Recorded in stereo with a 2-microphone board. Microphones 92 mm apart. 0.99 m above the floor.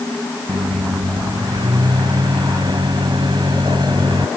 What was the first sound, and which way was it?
A microwave, 55° right (ahead or behind).